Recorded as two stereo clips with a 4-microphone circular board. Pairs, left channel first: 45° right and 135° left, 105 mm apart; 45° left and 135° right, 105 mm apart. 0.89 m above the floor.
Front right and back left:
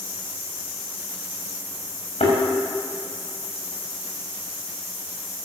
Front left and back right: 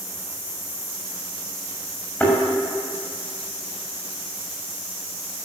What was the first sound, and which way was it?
A thud, 30° right.